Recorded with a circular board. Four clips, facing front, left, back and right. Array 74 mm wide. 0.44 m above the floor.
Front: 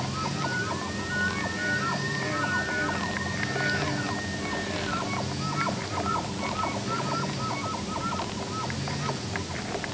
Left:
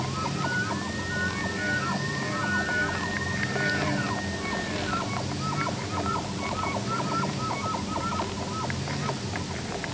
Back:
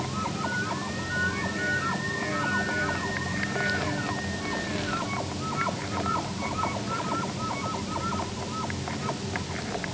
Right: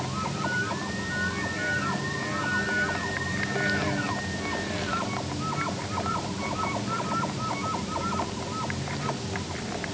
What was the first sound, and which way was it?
Only background noise.